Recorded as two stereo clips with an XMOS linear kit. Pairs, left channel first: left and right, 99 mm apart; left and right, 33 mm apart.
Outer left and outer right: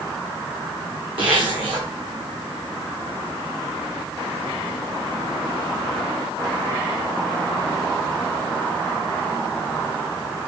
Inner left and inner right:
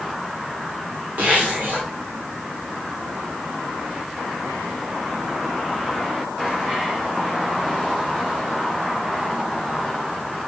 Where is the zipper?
60° right (ahead or behind), 2.5 m.